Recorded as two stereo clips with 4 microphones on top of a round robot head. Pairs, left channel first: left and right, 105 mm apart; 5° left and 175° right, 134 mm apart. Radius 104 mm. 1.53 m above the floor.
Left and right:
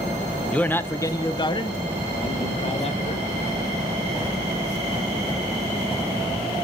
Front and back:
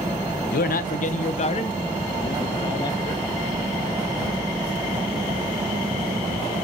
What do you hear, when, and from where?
0.5 s a man speaking: 10° left, 1.0 m; by 3.4 s 70° left, 2 m